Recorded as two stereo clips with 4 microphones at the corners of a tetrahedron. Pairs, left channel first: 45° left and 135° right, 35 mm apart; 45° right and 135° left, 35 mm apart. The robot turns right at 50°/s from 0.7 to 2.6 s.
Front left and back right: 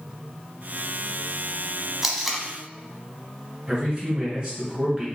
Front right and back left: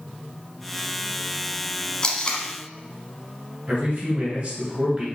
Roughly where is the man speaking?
Behind.